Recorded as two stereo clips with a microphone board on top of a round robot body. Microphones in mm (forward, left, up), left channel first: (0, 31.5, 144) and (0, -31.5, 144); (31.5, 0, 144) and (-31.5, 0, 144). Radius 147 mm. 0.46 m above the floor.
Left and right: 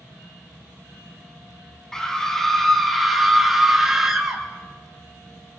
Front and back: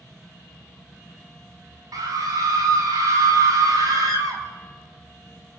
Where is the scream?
170° left, 5.5 m; by 4.4 s 170° right, 5.5 m.